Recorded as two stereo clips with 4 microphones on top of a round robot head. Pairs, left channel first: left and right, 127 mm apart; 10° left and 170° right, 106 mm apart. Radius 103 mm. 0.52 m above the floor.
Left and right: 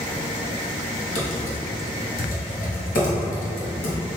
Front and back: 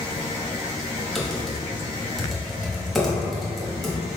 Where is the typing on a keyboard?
95° left, 0.9 m.